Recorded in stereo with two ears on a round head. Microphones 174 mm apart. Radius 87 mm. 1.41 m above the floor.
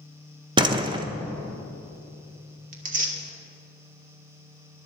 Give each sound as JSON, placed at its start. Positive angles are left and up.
{"t": 0.6, "sound": "a door slam", "side_deg": -25, "distance_m": 0.8}
{"t": 2.7, "sound": "tearing paper", "side_deg": -45, "distance_m": 1.8}